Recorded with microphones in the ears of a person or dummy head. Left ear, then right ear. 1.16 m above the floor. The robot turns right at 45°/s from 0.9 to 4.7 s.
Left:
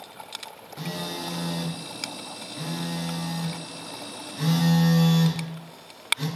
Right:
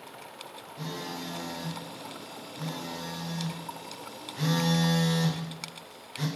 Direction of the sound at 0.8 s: 40° left.